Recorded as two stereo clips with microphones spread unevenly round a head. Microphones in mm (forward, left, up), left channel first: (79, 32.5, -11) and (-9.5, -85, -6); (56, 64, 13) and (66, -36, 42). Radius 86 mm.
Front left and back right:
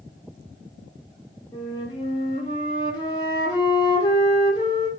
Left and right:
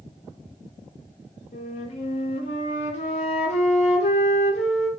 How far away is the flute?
About 0.9 m.